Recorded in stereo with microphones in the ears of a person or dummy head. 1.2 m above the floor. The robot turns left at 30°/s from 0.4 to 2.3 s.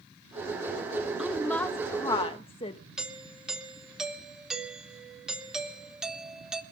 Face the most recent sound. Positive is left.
turn(degrees=-5)  # may be behind; listen again after turning